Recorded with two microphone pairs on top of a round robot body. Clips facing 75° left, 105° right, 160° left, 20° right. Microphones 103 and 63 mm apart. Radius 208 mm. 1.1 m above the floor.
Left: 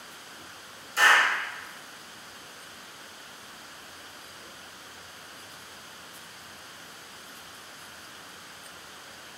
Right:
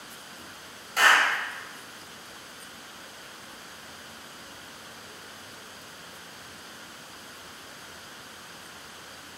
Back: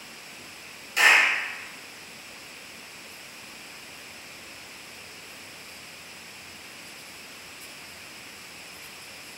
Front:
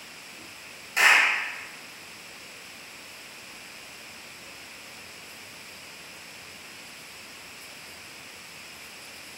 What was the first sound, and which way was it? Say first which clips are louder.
A clap: even, back 1 dB; 80° right.